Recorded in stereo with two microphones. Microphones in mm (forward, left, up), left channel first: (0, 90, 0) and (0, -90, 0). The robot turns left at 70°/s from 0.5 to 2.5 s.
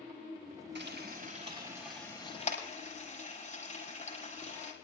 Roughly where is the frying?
Right.